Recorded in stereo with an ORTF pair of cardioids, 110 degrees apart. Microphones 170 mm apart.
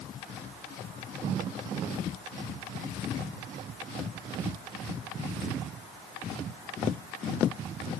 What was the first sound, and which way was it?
Only background noise.